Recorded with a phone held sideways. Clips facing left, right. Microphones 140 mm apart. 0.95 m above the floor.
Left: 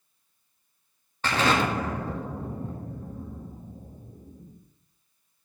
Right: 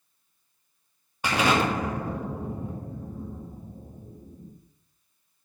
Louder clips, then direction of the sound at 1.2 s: Right 1 dB; 10° right (ahead or behind).